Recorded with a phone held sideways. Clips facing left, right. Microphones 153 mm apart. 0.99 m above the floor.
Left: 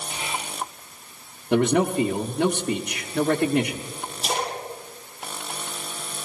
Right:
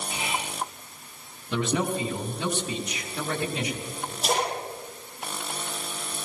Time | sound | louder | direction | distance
0.1 | whispering | even | 25° right (ahead or behind) | 7 m
1.5 | a man speaking | left 7 dB | 60° left (ahead or behind) | 1.0 m
4.2 | a splash | right 1 dB | 55° right (ahead or behind) | 8.5 m